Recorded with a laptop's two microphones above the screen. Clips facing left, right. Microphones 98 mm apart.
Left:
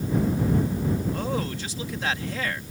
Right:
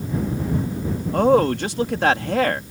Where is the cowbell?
I don't hear a cowbell.